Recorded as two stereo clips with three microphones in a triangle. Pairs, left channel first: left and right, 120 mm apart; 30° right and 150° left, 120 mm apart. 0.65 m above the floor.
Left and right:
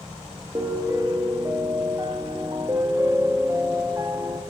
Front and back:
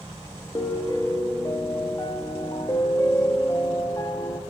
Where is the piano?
55° right, 0.7 m.